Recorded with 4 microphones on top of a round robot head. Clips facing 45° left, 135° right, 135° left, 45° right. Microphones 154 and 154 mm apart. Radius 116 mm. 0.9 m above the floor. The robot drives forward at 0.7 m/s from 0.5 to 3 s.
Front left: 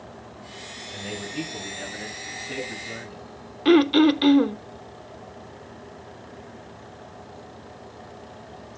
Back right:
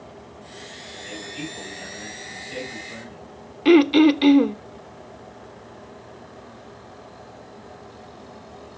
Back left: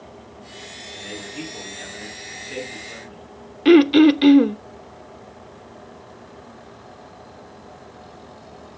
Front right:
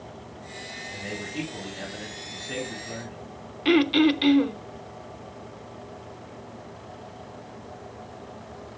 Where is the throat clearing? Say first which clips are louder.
Back right 2 dB, back left 8 dB; 150° left, 0.5 m.